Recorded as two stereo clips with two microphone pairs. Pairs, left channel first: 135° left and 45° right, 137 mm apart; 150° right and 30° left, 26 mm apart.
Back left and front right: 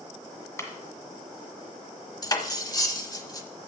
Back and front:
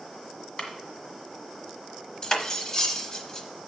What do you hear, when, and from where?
0.6 s a clap: 165° right, 1.7 m
2.2 s cutlery clinking: 170° left, 0.9 m